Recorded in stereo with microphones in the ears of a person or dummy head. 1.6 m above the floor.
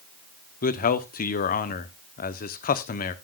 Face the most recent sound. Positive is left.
turn(degrees=45)  # may be behind; listen again after turning